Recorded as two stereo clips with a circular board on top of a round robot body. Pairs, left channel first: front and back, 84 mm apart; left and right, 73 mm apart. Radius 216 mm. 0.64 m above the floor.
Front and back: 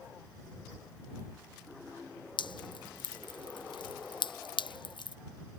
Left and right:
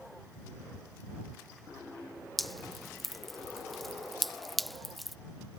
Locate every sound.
2.4 s dripping: straight ahead